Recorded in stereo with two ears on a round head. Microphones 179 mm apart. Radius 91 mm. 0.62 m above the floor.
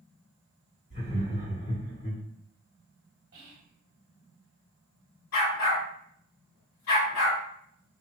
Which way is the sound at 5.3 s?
65° left (ahead or behind).